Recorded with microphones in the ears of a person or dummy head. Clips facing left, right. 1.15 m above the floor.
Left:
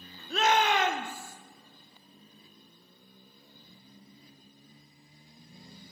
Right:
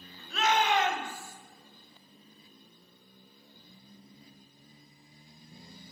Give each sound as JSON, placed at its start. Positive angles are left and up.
{"t": 0.3, "sound": "a shout", "side_deg": 30, "distance_m": 0.7}